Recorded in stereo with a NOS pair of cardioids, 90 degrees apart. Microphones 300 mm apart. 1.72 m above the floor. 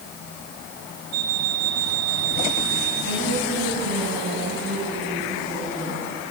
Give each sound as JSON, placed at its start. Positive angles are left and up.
{"t": 1.1, "sound": "an alarm clock", "azimuth_deg": -60, "distance_m": 5.0}
{"t": 3.0, "sound": "a woman speaking", "azimuth_deg": -55, "distance_m": 7.5}